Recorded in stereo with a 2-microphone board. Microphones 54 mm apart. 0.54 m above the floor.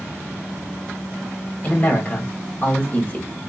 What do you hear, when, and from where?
1.6 s a man speaking: 30° left (ahead or behind), 1.7 m